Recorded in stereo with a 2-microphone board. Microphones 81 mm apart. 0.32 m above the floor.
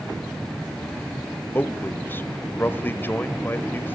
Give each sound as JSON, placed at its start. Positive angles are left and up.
{"t": 1.6, "sound": "a man speaking", "side_deg": 25, "distance_m": 1.4}